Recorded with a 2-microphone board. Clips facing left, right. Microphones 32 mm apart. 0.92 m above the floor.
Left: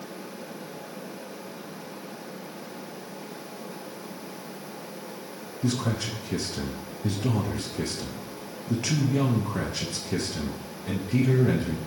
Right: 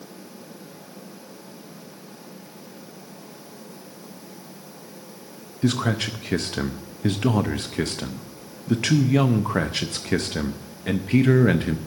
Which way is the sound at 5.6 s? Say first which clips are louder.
Right 5 dB; 70° right (ahead or behind).